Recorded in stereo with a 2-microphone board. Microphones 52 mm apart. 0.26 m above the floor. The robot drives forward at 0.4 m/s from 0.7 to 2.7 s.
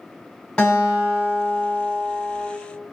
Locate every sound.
0.6 s a guitar: 20° left (ahead or behind), 1.4 m; by 2.5 s 15° left (ahead or behind), 2.0 m